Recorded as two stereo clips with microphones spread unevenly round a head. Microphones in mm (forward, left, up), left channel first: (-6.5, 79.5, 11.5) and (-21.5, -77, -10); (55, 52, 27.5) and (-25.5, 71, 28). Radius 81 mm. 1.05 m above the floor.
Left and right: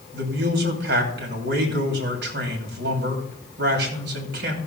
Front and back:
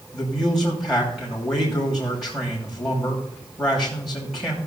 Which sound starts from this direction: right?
A man speaking, at 0.1 s.